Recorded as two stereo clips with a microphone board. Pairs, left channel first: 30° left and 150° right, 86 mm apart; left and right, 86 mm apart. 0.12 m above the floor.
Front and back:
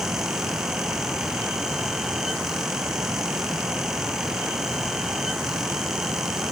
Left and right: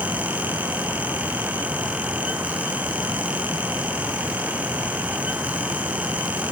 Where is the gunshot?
I don't hear a gunshot.